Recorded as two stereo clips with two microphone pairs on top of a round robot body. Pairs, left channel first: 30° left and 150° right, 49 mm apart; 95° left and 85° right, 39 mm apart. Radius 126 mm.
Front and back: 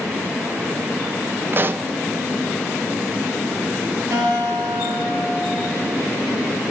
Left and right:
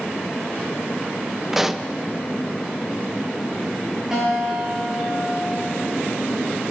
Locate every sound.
1.5 s a pop: 150° right, 1.1 m
4.1 s a guitar: 165° right, 8 m